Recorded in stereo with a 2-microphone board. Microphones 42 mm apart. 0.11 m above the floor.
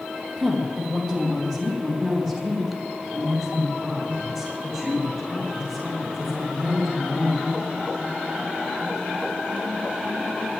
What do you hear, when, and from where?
0.4 s a woman speaking: 5° left (ahead or behind), 4.5 m; by 7.5 s centre (ahead or behind), 10.5 m